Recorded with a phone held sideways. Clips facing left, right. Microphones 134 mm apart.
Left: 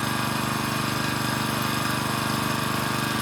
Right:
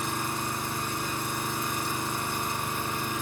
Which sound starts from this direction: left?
An engine running, at 0.0 s.